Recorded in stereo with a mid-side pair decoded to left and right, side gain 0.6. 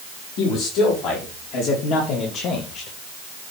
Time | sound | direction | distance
0.4 | a man speaking | 65° left | 4 m